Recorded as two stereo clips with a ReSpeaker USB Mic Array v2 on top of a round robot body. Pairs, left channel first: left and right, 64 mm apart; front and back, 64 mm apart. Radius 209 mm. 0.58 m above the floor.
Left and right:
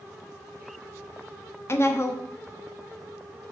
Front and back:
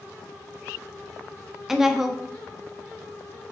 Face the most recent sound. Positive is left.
turn(degrees=100)